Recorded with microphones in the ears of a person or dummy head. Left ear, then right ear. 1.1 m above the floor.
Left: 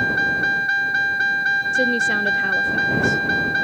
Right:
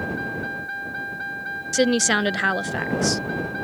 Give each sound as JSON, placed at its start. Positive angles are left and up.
{"t": 0.0, "sound": "a vehicle", "side_deg": 45}
{"t": 1.7, "sound": "a woman speaking", "side_deg": -45}